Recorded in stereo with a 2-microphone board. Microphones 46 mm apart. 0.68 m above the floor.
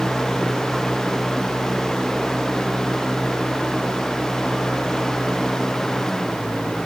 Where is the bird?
I don't hear a bird.